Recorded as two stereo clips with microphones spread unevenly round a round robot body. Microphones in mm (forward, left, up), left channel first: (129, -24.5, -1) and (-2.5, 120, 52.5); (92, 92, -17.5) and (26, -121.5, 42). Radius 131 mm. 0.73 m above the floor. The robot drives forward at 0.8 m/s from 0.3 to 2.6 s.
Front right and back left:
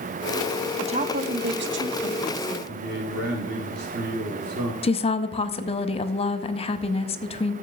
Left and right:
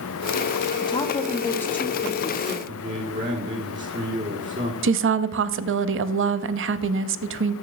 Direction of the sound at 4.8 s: 75° right.